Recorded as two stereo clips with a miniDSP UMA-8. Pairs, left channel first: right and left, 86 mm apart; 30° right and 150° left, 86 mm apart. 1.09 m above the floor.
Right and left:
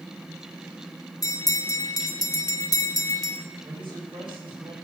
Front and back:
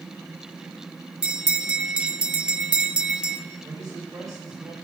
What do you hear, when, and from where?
1.2 s a bell: 130° right, 1.3 m
3.6 s a man speaking: 105° left, 7 m